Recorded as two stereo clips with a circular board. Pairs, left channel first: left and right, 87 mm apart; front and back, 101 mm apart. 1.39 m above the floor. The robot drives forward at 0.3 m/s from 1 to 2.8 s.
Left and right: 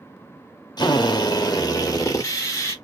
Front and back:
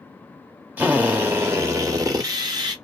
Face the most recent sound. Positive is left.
turn(degrees=140)